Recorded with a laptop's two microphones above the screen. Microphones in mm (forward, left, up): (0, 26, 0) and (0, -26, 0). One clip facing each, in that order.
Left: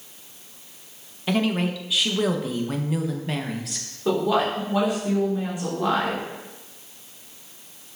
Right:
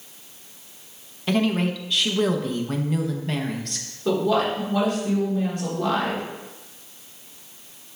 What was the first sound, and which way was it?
A woman speaking, 5° left (ahead or behind).